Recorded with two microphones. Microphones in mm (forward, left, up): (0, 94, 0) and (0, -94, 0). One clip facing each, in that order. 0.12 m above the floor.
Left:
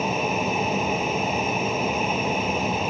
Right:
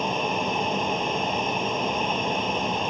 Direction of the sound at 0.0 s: 5° left (ahead or behind).